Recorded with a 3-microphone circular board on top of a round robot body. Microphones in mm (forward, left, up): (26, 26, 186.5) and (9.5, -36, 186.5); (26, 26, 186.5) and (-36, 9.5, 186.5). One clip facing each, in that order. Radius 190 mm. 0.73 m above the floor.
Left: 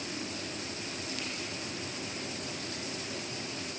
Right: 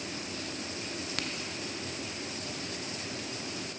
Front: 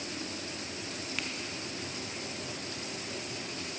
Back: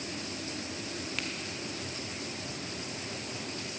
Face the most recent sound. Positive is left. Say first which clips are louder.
# right 5 dB, even
turn(degrees=-75)